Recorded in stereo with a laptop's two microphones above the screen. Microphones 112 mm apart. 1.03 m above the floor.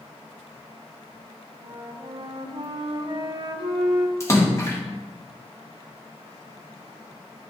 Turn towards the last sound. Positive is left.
turn(degrees=25)  # may be behind; listen again after turning